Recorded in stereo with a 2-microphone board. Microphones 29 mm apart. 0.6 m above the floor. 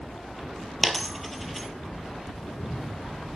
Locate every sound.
0.8 s a dropped coin: 5° left (ahead or behind), 1.0 m
2.4 s a cat meowing: 65° left (ahead or behind), 2.5 m